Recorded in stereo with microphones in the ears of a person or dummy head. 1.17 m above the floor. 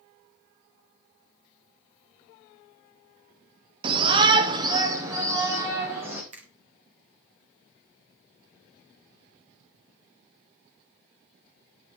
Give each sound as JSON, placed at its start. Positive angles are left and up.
{"t": 3.8, "sound": "a shout", "side_deg": -25, "distance_m": 0.7}
{"t": 6.3, "sound": "a finger snap", "side_deg": -35, "distance_m": 1.6}